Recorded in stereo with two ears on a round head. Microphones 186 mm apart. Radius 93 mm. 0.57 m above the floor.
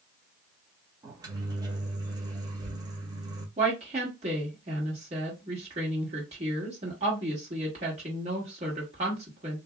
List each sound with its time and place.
1.0 s a microwave: 20° right (ahead or behind), 0.7 m
3.6 s a woman speaking: 30° right (ahead or behind), 1.5 m